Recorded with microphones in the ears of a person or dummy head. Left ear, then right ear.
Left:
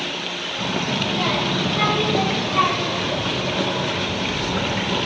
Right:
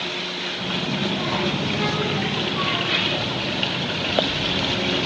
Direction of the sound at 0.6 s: 80° left.